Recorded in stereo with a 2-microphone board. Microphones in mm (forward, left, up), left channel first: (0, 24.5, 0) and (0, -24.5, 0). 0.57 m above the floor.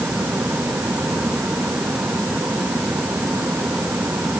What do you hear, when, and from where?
Only background noise.